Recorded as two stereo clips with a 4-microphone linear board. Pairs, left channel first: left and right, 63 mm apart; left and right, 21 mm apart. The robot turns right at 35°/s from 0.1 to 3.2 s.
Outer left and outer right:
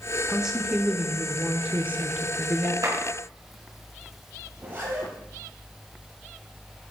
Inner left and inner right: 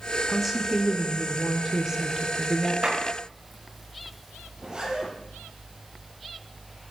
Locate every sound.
0.3 s a woman speaking: 5° right (ahead or behind), 0.8 m; by 2.7 s 30° right (ahead or behind), 0.8 m
2.8 s a clap: 60° right (ahead or behind), 4.5 m; by 3.0 s 55° right (ahead or behind), 4.5 m
4.5 s a zipper: 35° right (ahead or behind), 6.5 m